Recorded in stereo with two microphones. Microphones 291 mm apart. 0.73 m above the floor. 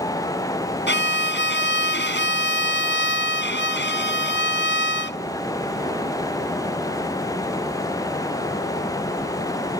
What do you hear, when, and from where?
0.9 s a violin: 40° left (ahead or behind)